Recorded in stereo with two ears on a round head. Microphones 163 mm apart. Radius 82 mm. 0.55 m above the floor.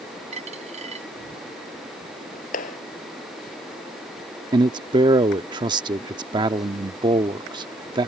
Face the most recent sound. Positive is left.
turn(degrees=-25)  # may be behind; listen again after turning